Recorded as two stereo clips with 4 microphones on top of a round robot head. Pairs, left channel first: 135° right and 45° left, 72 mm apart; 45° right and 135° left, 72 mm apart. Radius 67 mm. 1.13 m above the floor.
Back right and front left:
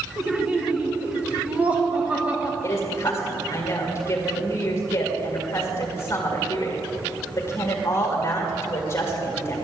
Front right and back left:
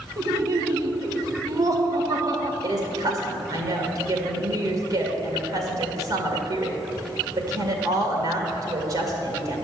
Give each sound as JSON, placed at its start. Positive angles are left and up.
{"t": 0.2, "sound": "laughter", "azimuth_deg": 115, "distance_m": 1.1}
{"t": 2.6, "sound": "a woman speaking", "azimuth_deg": 170, "distance_m": 2.0}